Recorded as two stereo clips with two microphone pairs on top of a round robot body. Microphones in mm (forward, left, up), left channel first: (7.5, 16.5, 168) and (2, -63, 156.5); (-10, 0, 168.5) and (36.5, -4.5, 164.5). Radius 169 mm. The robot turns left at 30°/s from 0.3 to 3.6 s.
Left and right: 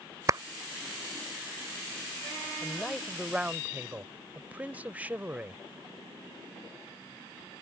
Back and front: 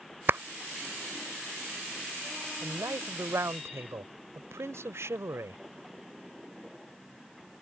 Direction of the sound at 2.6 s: 5° left.